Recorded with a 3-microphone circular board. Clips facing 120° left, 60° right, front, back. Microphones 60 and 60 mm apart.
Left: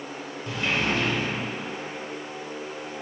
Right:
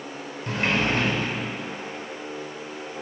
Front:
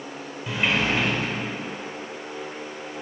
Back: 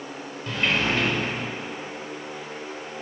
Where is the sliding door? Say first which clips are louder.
Right 2 dB, front 1 dB; 75° right, 1.7 m.